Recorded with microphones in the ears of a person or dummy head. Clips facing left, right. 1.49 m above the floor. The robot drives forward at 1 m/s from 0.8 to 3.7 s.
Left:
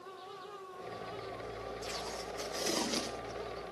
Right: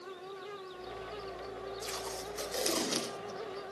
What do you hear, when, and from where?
1.8 s tape being pulled: 75° right (ahead or behind), 4 m; by 3.4 s 55° right (ahead or behind), 4.5 m